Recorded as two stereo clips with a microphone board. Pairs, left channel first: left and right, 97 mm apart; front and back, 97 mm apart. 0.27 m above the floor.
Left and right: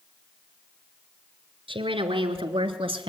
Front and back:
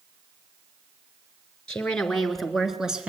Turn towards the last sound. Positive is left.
turn(degrees=-100)